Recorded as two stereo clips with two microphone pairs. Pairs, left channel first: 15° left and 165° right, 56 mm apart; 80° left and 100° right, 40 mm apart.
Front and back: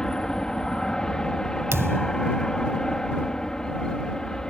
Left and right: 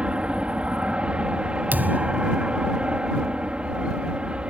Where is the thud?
135° right.